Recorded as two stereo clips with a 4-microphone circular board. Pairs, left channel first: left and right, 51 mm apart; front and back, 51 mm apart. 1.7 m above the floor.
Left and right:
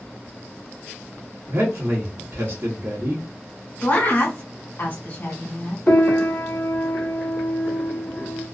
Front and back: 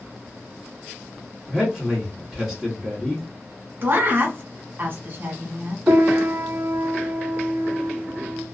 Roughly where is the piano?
Behind left.